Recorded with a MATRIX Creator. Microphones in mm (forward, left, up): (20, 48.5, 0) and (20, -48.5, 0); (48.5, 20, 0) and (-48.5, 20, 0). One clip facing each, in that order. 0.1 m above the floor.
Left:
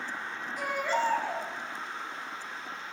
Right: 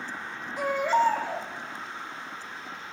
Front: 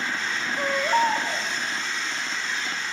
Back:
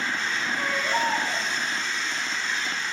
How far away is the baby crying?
About 3.5 m.